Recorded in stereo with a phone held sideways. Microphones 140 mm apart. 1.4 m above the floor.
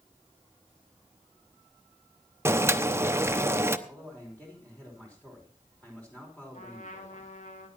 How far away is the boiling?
About 0.8 m.